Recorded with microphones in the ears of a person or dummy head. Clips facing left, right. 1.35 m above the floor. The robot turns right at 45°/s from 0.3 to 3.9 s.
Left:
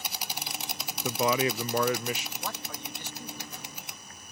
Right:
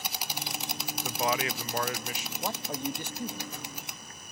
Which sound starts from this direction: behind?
A man speaking, at 2.4 s.